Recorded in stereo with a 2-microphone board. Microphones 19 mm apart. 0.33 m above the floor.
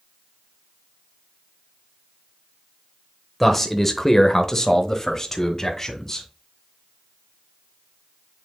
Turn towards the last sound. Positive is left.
turn(degrees=20)  # may be behind; listen again after turning